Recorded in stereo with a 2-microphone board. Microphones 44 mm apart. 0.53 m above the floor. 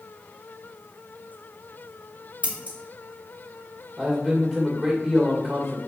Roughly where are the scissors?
Right.